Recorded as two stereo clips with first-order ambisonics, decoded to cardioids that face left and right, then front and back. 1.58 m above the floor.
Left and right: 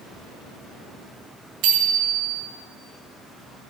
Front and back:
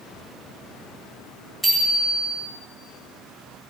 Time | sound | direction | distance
1.6 | a bicycle bell | 85° right | 3 m